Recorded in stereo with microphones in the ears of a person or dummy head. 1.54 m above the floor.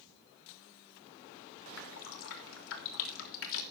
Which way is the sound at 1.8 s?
75° left (ahead or behind).